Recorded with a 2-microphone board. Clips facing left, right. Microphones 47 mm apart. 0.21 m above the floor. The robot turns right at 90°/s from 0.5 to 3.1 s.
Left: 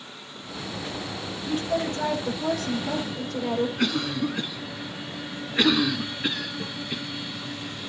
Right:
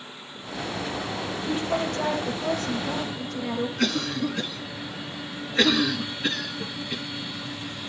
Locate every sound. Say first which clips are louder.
1.4 s a woman speaking: left 1 dB; 25° right, 8.5 m; by 3.7 s 120° left, 8.5 m
3.8 s a cough: even; 10° left (ahead or behind), 1.6 m
6.6 s a snare drum: even; 40° left (ahead or behind), 7.5 m